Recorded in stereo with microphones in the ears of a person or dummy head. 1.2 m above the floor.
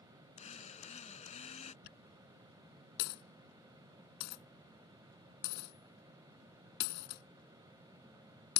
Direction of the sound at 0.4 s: 30° left (ahead or behind).